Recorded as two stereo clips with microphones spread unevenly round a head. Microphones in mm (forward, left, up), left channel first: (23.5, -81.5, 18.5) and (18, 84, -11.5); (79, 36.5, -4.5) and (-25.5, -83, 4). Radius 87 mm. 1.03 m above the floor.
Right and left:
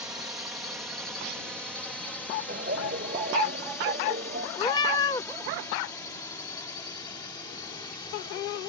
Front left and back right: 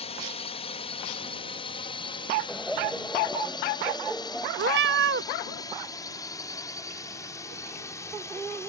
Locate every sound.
0.0 s a drone: 20° left; by 8.7 s 20° right
2.5 s laughter: 140° left
4.6 s a cat meowing: 155° right